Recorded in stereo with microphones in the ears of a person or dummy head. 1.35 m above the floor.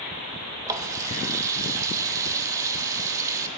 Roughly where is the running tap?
Centre.